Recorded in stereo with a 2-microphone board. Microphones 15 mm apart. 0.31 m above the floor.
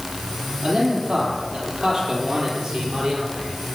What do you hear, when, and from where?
0.6 s a man speaking: 85° right, 7.5 m; by 3.5 s 70° right (ahead or behind), 5.5 m